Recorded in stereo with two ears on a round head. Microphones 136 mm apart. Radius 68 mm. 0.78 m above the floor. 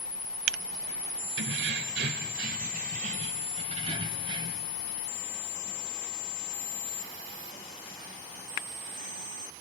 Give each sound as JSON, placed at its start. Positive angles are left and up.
{"t": 1.4, "sound": "keys jangling", "side_deg": -90, "distance_m": 2.0}